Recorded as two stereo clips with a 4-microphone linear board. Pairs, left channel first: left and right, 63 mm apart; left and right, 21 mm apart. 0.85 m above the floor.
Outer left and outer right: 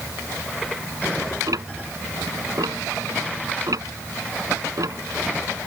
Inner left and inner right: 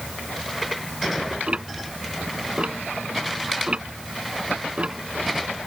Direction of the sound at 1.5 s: 80° right.